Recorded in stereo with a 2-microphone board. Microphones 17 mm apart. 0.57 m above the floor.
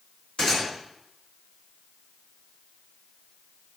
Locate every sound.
0.4 s a gunshot: 45° left (ahead or behind), 1.9 m